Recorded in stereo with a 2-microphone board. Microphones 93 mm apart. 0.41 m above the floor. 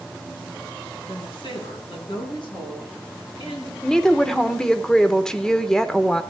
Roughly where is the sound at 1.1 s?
Left.